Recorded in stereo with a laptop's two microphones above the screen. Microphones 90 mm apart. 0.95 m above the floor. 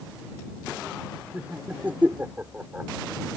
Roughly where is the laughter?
Centre.